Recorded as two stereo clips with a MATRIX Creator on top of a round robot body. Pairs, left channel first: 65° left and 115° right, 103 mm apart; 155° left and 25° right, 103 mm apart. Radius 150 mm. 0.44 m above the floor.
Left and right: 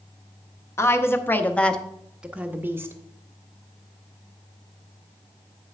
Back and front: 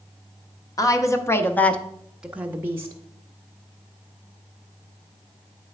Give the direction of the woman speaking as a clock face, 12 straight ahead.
8 o'clock.